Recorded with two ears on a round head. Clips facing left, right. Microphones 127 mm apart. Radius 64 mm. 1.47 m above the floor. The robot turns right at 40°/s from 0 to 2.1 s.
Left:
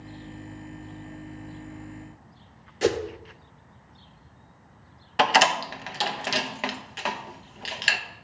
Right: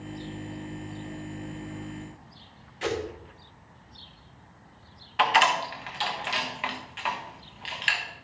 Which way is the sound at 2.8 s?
50° left (ahead or behind).